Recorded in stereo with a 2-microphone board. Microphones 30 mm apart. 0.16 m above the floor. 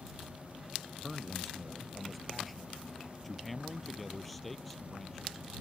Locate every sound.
1.0 s a man speaking: centre (ahead or behind); by 5.5 s 5° left (ahead or behind)